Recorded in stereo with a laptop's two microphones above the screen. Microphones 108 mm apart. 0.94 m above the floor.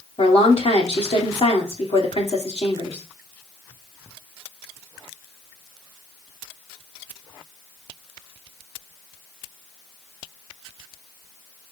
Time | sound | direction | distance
0.2 | a woman speaking | 70° left (ahead or behind) | 2.5 m